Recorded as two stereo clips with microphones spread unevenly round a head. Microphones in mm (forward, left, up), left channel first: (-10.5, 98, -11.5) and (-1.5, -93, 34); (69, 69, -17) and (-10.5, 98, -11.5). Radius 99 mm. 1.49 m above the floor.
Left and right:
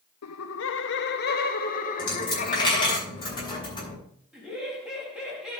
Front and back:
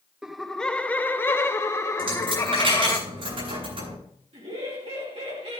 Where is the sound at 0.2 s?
80° left, 0.6 m; by 3.0 s 30° left, 1.8 m.